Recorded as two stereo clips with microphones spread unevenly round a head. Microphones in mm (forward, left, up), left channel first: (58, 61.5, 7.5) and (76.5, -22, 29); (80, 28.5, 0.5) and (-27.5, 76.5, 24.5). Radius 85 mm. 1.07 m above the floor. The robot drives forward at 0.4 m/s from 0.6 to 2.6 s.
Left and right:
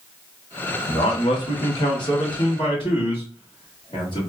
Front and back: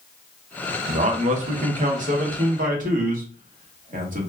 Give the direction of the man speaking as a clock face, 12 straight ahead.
8 o'clock.